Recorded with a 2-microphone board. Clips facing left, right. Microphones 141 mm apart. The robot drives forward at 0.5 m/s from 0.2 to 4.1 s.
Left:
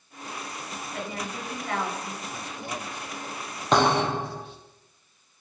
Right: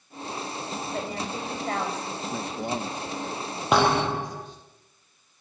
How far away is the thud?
About 6 m.